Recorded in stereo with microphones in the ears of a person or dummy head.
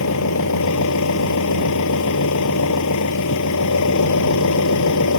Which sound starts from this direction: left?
An engine running, at 0.0 s.